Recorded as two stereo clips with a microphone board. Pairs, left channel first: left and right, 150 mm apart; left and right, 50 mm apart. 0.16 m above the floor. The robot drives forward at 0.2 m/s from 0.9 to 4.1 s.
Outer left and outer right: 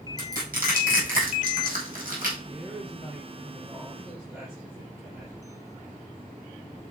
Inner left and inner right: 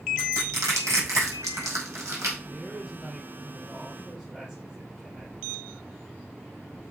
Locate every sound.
0.2 s crushing: 80° right, 4.5 m; by 2.3 s 75° right (ahead or behind), 4.5 m
2.4 s a woman speaking: 5° right (ahead or behind), 4 m